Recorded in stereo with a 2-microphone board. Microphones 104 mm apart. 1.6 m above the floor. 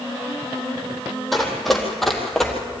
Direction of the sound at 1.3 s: Centre (ahead or behind).